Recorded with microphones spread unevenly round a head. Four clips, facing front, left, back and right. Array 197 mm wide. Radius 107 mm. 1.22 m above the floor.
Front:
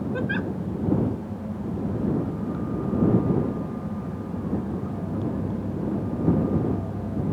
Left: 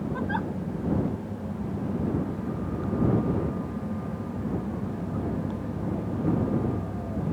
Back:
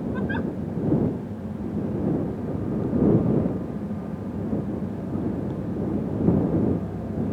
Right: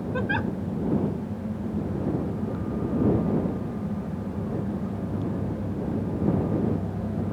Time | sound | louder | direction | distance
0.1 | a giggle | right 4 dB, even | 95° right | ?